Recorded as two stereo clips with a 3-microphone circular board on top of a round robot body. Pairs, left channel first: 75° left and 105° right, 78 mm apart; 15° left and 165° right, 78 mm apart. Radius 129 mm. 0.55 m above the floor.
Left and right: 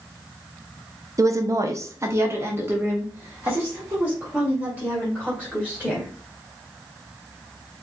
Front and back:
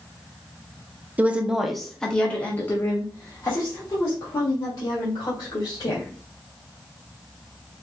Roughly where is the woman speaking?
Right.